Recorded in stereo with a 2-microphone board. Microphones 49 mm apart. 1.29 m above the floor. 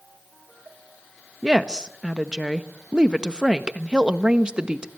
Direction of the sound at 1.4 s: 20° right (ahead or behind).